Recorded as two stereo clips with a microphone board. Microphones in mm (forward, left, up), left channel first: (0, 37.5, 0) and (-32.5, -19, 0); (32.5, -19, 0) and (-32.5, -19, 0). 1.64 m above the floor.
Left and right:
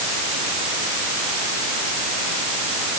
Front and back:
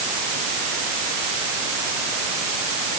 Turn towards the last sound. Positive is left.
No sound to turn to.